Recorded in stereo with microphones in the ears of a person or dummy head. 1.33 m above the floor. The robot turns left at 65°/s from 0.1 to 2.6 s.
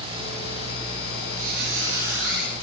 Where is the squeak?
50° right, 6 m; by 2.5 s 130° right, 6 m.